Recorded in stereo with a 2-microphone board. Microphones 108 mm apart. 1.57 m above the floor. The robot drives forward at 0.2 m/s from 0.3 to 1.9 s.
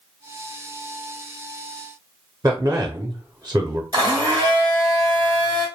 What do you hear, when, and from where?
2.4 s a man speaking: 35° right (ahead or behind), 0.5 m
3.9 s a blender: 35° right (ahead or behind), 1.8 m